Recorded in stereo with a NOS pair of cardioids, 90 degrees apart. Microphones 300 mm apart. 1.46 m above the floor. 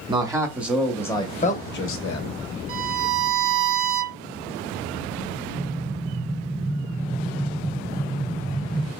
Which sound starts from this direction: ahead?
A man speaking, at 0.1 s.